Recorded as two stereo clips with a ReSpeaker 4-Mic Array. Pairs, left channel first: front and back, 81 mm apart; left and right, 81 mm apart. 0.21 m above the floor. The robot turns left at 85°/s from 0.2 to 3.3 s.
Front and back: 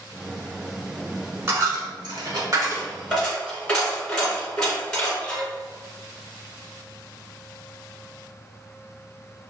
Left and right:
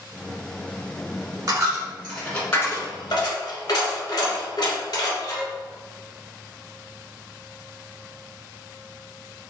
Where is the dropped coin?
125° right, 1.2 m; by 5.5 s 80° left, 1.2 m.